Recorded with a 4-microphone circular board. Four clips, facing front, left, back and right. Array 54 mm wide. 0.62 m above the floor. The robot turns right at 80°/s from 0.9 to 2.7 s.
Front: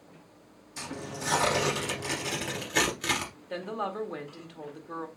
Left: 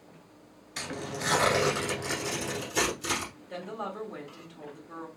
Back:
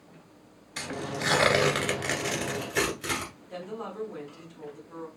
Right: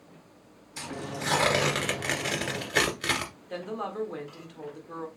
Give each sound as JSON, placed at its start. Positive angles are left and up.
{"t": 0.8, "sound": "tearing paper", "azimuth_deg": 145, "distance_m": 1.9}
{"t": 3.5, "sound": "a woman speaking", "azimuth_deg": -25, "distance_m": 1.3}